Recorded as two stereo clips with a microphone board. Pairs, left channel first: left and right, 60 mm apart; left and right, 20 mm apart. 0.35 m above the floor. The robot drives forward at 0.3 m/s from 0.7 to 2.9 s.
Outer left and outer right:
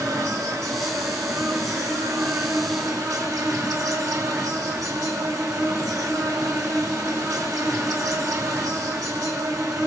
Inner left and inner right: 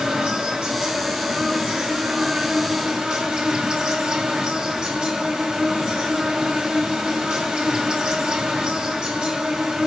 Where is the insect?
70° right (ahead or behind), 3.5 m.